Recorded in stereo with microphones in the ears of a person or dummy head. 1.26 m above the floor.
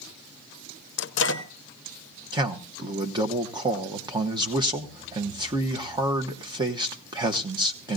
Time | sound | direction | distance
1.0 | a microwave | 55° left (ahead or behind) | 0.6 m
2.3 | a man speaking | 30° right (ahead or behind) | 1.0 m